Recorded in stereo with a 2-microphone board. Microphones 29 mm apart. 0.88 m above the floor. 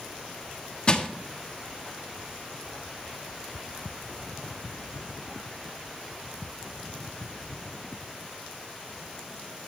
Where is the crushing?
30° left (ahead or behind), 1.3 m.